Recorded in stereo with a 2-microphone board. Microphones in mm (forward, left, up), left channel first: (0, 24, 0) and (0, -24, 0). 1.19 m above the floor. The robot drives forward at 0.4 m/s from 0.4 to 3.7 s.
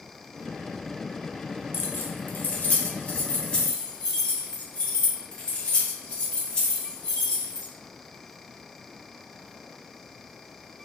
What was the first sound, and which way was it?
Keys jangling, 50° left (ahead or behind).